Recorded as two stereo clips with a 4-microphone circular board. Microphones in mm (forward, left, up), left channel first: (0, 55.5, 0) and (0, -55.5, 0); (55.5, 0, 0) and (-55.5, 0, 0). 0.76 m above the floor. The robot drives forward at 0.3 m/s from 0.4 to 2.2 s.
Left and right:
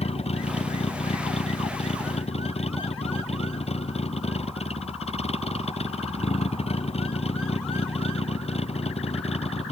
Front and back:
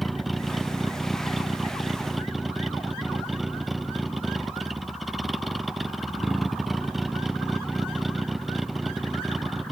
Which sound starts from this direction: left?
A vehicle, at 0.0 s.